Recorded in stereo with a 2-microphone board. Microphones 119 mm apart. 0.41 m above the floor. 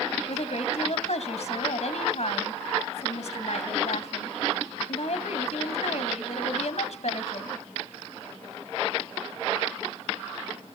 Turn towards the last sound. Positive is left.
turn(degrees=70)  # may be behind; listen again after turning